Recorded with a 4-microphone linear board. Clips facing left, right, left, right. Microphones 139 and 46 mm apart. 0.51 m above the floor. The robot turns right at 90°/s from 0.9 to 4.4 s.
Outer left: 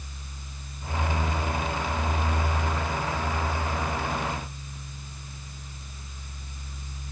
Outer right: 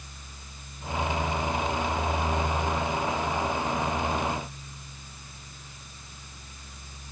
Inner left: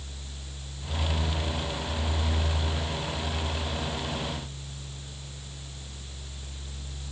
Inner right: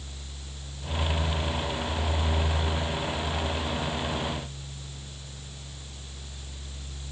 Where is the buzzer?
No buzzer in this recording.